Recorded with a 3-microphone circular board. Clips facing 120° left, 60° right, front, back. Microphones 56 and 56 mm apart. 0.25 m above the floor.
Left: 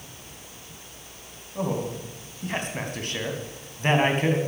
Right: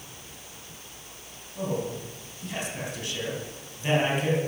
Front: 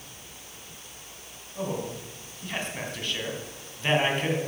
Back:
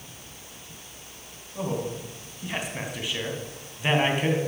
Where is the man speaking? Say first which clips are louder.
Left 2 dB, back 2 dB; 100° left, 2.5 m.